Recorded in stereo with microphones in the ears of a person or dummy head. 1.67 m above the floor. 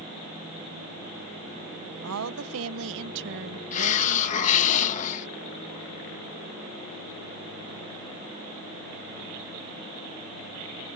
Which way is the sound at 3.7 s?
40° left (ahead or behind).